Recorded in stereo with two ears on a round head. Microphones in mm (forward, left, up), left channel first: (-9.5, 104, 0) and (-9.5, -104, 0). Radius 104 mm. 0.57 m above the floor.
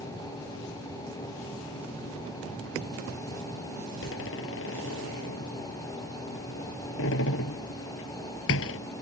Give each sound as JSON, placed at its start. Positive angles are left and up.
{"t": 4.0, "sound": "a door slam", "side_deg": 55}